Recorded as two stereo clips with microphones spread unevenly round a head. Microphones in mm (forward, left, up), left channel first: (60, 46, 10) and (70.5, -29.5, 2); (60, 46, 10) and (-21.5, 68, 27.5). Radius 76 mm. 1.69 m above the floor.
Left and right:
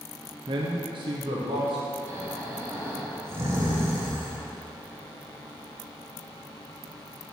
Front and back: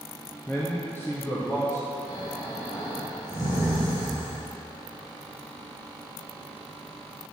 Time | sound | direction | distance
0.5 | a man speaking | 100° right | 0.6 m
2.1 | snoring | 45° right | 1.5 m